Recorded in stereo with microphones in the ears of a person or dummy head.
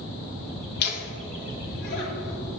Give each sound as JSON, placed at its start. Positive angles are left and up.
{"t": 0.8, "sound": "laughter", "side_deg": 55, "distance_m": 1.5}